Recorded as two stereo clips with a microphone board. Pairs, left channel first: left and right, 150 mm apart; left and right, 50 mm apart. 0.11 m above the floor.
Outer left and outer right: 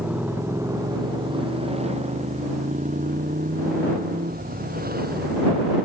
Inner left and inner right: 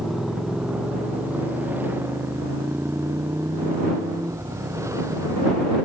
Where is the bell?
No bell in this recording.